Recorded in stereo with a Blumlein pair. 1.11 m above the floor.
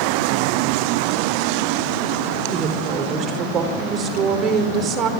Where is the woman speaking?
30° right, 4.5 m.